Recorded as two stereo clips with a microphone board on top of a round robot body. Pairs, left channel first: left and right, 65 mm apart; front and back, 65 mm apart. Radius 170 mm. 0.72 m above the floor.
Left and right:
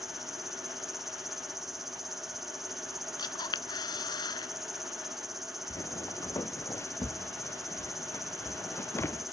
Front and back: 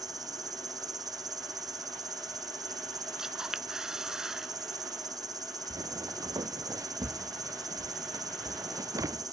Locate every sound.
0.0 s an insect: straight behind
3.2 s a camera shutter: 100° left
5.7 s footsteps: 140° left